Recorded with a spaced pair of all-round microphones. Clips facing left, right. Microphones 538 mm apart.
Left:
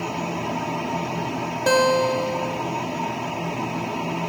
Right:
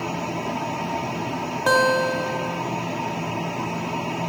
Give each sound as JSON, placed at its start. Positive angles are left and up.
{"t": 1.7, "sound": "a guitar", "side_deg": 45, "distance_m": 1.3}